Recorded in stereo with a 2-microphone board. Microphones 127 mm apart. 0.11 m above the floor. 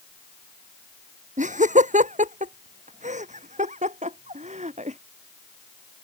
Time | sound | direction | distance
1.4 | laughter | 75° right (ahead or behind) | ?